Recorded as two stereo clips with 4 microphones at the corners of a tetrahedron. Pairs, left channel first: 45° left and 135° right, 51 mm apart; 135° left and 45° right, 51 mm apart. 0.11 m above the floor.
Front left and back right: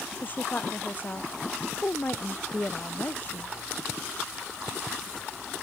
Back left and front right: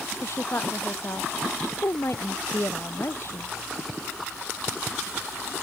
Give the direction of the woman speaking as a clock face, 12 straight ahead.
9 o'clock.